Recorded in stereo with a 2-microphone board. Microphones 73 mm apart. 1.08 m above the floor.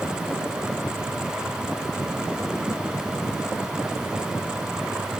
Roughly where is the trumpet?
I don't hear a trumpet.